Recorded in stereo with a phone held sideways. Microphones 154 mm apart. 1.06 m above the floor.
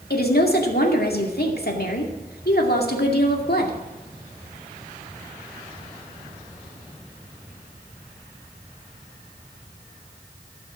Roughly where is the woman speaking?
Left.